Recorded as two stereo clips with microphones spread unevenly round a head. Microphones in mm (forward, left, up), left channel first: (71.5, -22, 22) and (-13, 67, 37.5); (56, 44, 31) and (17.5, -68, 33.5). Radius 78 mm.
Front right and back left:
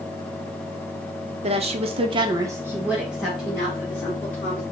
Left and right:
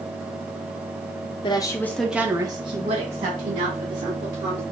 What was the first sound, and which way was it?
A woman speaking, 105° left.